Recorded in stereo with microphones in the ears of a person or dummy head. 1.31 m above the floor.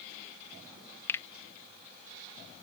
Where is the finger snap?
10° left (ahead or behind).